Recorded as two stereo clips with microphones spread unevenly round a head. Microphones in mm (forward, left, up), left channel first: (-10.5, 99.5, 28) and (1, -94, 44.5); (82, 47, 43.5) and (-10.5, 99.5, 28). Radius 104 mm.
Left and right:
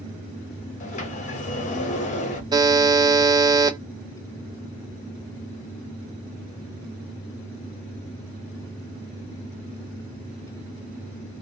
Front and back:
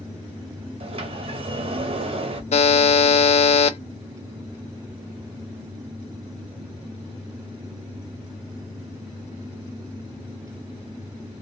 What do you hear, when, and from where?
0.8 s a sliding door: 140° left, 0.9 m
2.5 s a buzzer: 15° right, 0.6 m